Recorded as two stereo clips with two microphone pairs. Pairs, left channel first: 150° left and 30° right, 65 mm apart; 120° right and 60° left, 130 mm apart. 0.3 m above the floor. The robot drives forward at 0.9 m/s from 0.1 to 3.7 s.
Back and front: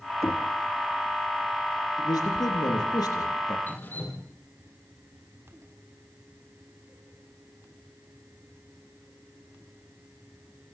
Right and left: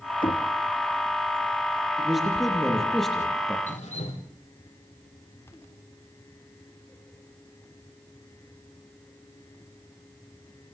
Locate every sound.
0.2 s knocking: 170° right, 3 m
2.0 s a man speaking: 145° left, 7.5 m; by 3.6 s 150° left, 8.5 m
3.7 s dripping: 150° right, 6 m